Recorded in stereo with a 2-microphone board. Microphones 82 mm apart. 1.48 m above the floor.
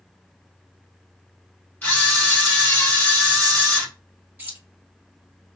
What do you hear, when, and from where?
1.8 s a camera shutter: 20° left (ahead or behind), 1.5 m
4.4 s keys jangling: 20° right (ahead or behind), 1.8 m